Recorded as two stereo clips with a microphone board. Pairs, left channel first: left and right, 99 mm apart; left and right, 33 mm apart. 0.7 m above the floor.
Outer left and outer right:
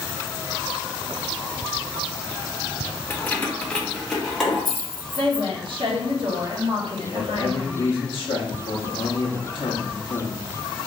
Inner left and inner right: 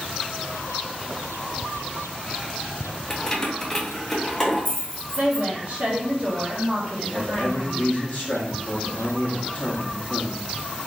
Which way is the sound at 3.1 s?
15° left (ahead or behind).